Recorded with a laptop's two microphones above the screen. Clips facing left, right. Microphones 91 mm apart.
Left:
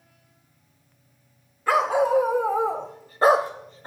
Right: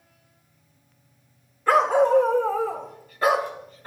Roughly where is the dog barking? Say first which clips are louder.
Right 2 dB; centre.